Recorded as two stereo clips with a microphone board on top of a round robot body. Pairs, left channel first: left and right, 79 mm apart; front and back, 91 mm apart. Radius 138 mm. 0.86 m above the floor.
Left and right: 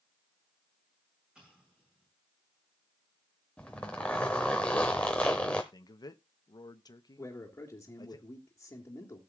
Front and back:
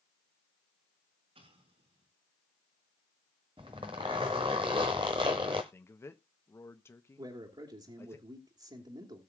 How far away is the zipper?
About 0.6 m.